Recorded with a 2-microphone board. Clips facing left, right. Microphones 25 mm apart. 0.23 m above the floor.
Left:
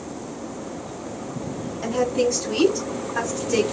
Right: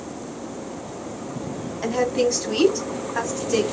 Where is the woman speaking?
35° right (ahead or behind), 1.8 m; by 3.6 s 10° right (ahead or behind), 2.0 m.